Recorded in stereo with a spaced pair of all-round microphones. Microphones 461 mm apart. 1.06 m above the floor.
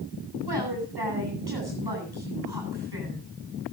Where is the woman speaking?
55° right (ahead or behind), 10 m.